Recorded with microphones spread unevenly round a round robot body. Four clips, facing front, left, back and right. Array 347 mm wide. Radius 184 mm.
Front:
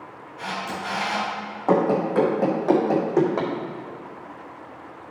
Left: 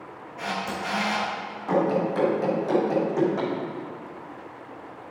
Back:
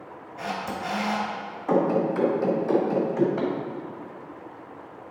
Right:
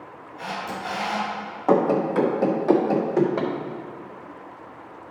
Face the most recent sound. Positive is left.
turn(degrees=-25)